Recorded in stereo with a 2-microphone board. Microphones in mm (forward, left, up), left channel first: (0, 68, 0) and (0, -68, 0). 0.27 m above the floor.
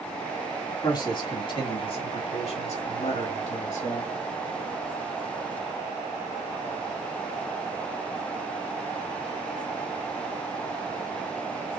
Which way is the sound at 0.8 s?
30° left (ahead or behind).